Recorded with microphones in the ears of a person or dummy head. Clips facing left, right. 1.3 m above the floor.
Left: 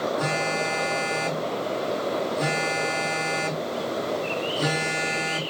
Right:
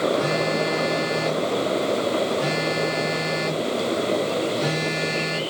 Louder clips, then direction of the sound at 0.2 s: Right 4 dB; 45° left (ahead or behind).